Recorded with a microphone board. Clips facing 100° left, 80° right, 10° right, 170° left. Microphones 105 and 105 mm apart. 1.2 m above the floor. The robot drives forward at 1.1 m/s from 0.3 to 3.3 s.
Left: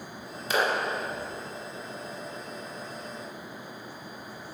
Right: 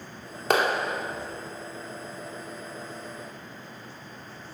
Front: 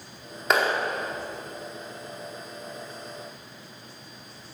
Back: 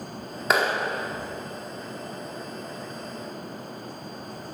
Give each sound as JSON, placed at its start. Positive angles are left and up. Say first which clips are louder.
{"t": 0.5, "sound": "a clap", "louder": "right 3 dB, even", "azimuth_deg": -100, "distance_m": 2.5}